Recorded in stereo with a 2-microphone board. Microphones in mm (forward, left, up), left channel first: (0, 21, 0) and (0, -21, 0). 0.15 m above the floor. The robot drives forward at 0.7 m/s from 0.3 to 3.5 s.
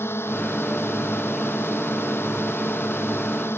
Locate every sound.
0.0 s a drone: 80° left; by 3.6 s 75° left (ahead or behind)